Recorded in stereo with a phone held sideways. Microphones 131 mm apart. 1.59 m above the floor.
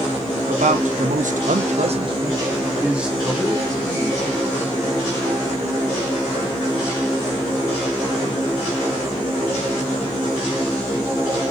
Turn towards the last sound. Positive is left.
turn(degrees=15)  # may be behind; listen again after turning